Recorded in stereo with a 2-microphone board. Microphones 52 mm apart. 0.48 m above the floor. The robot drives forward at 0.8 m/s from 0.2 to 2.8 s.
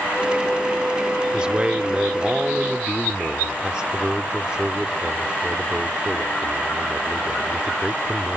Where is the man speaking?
15° right (ahead or behind); by 8.4 s 20° right (ahead or behind).